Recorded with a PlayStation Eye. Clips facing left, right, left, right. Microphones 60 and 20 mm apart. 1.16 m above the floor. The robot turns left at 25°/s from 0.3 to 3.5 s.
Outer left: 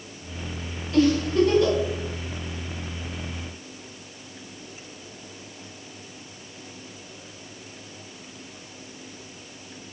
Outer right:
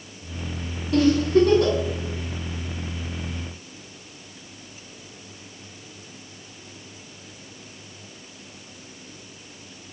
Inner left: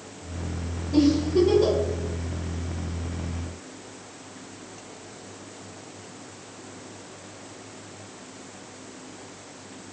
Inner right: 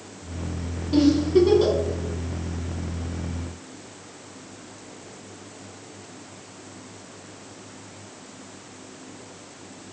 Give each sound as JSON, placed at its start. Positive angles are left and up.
{"t": 0.9, "sound": "a giggle", "side_deg": -80, "distance_m": 1.9}